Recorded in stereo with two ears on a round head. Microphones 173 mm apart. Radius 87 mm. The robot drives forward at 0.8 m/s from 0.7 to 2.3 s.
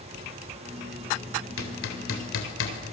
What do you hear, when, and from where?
1.6 s hammering: 80° left, 3.5 m; by 2.8 s 75° left (ahead or behind), 3.5 m